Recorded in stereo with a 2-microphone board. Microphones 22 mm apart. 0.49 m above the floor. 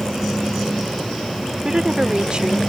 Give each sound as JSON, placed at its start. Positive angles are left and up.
{"t": 1.6, "sound": "a woman speaking", "side_deg": -45}